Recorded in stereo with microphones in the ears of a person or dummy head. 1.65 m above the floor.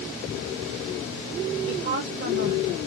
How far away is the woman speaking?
About 1.9 m.